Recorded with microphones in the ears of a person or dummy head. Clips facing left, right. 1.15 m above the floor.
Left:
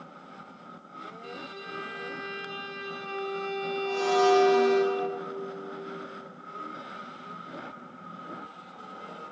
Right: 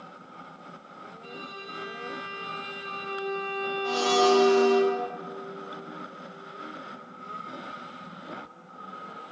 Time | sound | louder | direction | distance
1.2 | a violin | left 1 dB | 20° left (ahead or behind) | 1.9 m
3.8 | a blender | even | 45° right (ahead or behind) | 1.5 m